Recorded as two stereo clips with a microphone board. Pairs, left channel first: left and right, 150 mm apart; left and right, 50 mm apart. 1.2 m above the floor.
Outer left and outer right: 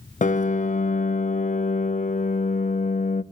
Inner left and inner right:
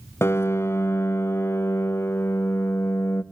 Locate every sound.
0.2 s a piano: 55° left (ahead or behind), 0.5 m